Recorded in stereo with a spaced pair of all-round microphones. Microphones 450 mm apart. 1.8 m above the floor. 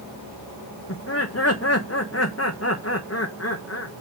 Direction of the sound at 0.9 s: 30° left (ahead or behind).